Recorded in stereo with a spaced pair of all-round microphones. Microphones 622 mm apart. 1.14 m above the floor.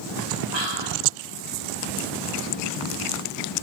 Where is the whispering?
40° right (ahead or behind), 6 m.